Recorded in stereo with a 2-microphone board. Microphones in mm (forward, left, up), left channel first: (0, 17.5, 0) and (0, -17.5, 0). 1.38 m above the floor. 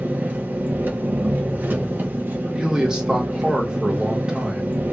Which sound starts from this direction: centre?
A man speaking, at 2.5 s.